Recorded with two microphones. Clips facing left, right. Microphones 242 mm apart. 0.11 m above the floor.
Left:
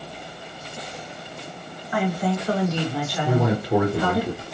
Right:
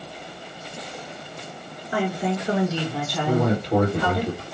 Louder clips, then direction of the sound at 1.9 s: Left 1 dB; 30° right (ahead or behind).